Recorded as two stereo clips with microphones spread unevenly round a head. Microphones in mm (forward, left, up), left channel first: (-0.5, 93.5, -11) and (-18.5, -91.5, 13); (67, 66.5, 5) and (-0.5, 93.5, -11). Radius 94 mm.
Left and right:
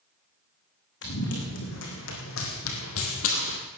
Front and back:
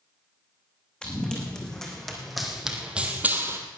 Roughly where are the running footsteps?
Ahead left.